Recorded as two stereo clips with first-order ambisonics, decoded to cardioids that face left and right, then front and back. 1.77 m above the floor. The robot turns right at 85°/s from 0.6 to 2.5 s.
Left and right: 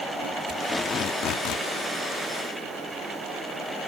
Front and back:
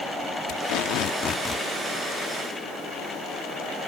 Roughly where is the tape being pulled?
Ahead.